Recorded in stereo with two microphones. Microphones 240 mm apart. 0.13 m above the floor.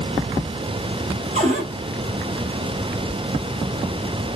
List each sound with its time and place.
1.4 s a cupboard door: 30° right (ahead or behind), 1.8 m